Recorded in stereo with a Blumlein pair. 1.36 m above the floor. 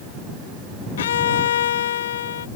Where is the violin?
60° left.